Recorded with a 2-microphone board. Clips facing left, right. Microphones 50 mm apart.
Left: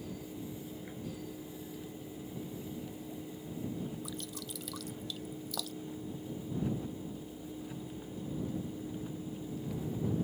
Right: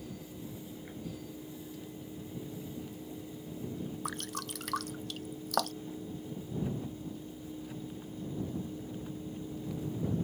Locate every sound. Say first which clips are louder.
4.0 s dripping: right 4 dB; 70° right (ahead or behind)